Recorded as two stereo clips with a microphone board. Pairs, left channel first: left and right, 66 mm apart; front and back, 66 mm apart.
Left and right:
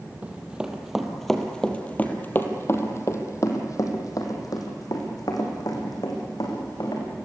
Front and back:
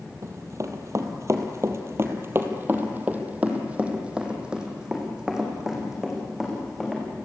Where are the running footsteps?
155° right, 2.5 m; by 7.0 s 95° left, 6 m.